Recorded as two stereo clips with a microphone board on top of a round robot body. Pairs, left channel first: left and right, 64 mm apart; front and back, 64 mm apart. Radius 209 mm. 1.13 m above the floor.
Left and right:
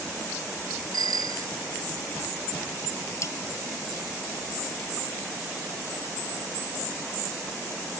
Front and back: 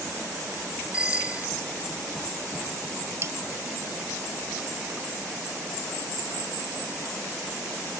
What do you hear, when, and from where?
0.9 s a bicycle bell: 105° right
3.2 s cutlery clinking: 130° left